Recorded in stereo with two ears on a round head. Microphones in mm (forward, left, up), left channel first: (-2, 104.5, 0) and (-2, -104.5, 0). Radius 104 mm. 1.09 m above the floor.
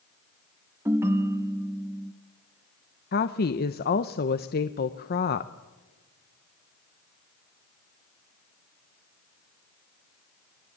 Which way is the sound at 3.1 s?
40° left (ahead or behind).